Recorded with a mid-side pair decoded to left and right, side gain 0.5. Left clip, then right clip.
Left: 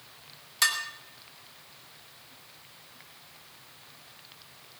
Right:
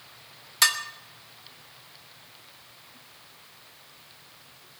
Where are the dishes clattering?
25° right, 2.0 m.